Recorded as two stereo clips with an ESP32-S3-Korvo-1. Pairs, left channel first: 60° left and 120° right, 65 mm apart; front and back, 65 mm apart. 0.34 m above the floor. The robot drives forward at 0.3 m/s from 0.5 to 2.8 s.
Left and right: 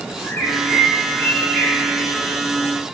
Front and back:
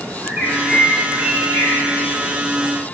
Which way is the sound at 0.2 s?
125° left.